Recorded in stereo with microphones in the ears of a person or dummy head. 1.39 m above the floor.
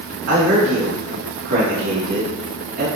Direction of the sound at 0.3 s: 65° right (ahead or behind).